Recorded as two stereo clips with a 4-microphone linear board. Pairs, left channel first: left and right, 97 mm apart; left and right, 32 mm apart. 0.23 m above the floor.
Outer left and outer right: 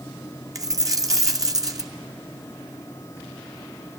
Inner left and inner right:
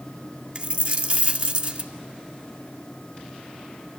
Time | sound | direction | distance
0.6 | a dropped coin | 35° right (ahead or behind) | 2.5 m